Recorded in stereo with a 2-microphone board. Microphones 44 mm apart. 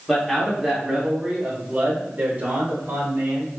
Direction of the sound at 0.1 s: 5° left (ahead or behind).